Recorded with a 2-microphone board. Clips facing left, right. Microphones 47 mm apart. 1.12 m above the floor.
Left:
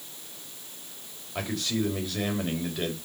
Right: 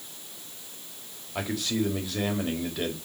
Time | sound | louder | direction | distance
1.4 | a man speaking | right 1 dB | centre (ahead or behind) | 4.5 m